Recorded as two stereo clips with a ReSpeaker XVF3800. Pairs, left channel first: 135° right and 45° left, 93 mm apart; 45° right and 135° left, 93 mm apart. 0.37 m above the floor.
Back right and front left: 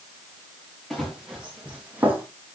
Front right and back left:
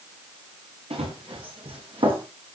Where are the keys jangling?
I don't hear keys jangling.